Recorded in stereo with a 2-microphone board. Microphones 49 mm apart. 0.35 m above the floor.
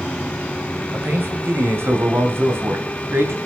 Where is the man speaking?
50° right (ahead or behind), 2.5 m; by 3.4 s 55° right (ahead or behind), 3.5 m.